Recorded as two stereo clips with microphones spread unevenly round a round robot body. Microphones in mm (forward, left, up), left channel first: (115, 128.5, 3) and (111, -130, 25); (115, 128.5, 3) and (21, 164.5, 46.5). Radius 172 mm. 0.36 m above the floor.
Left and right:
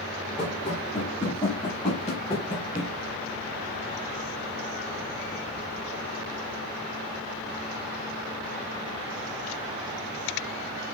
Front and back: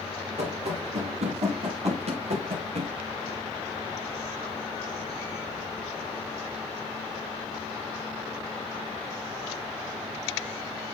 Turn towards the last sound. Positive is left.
turn(degrees=165)